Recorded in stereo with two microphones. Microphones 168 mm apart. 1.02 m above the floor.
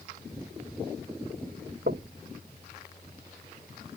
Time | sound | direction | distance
1.9 | knocking | 80° right | ?